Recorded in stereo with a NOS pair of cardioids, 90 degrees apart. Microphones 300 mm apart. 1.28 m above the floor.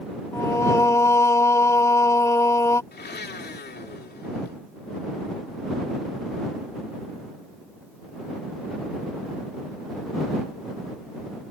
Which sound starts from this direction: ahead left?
A blender, at 2.9 s.